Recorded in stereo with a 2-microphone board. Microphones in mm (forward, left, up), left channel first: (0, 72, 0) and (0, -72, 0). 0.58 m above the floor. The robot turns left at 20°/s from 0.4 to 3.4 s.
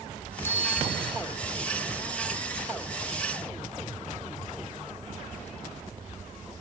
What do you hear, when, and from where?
0.4 s a bicycle bell: 15° left (ahead or behind); by 1.2 s 30° left (ahead or behind)